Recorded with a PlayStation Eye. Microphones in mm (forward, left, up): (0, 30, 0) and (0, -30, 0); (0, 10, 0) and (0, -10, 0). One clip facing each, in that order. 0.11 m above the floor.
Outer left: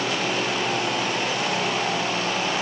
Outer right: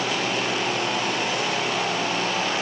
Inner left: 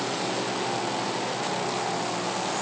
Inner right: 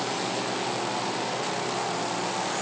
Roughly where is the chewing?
I don't hear chewing.